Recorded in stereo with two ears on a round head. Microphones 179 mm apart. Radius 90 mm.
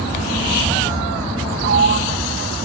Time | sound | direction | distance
1.6 | a sliding door | 55° right (ahead or behind) | ?